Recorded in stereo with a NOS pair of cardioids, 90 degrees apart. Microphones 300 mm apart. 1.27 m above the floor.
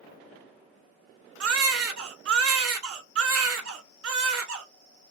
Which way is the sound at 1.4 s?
50° right.